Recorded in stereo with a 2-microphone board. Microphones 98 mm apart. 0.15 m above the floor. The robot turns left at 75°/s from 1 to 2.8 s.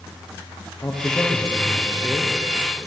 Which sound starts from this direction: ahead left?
A man speaking, at 0.8 s.